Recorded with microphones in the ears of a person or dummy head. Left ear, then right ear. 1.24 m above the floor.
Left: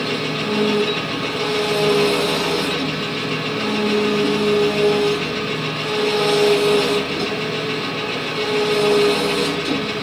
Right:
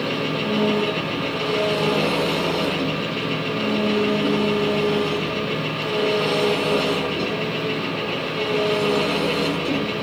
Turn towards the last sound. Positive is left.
turn(degrees=20)  # may be behind; listen again after turning